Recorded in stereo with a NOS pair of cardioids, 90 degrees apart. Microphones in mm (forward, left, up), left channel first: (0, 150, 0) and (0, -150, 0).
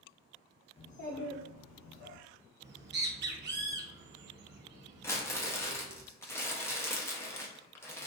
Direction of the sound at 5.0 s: 10° left.